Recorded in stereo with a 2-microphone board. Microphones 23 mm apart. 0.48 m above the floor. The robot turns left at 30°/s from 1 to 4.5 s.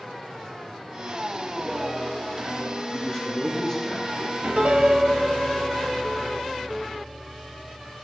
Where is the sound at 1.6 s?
10° right, 5 m; by 2.8 s 45° right, 5 m.